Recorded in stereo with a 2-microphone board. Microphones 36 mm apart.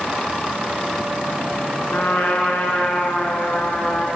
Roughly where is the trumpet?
Left.